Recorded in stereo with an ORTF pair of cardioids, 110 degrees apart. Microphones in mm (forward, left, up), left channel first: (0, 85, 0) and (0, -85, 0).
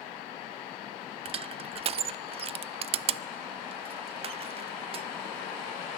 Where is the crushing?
35° right, 0.5 m.